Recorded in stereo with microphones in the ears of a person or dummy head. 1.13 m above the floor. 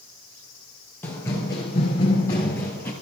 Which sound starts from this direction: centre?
Running footsteps, at 1.0 s.